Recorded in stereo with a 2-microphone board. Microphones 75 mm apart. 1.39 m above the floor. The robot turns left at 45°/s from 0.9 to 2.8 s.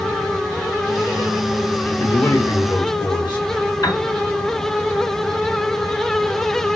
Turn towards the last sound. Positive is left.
turn(degrees=55)  # may be behind; listen again after turning